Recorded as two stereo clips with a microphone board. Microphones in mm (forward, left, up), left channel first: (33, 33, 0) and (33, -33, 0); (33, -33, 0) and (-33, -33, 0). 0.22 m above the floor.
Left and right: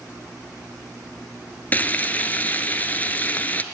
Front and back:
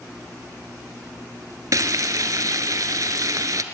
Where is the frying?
155° left, 0.6 m.